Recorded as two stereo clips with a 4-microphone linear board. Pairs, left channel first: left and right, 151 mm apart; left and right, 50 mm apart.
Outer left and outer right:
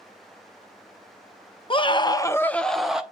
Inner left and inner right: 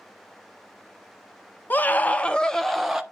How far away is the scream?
About 0.6 m.